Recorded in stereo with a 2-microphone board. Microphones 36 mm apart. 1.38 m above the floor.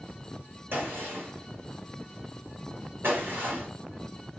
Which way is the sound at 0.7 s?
70° right (ahead or behind).